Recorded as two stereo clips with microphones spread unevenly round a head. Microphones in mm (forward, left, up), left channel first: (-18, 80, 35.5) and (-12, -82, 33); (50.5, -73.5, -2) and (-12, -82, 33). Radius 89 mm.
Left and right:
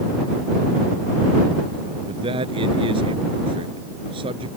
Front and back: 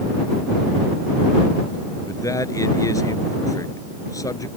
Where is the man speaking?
25° right.